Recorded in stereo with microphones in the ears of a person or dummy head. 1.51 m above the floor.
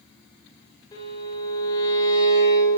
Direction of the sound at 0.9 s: 25° left (ahead or behind).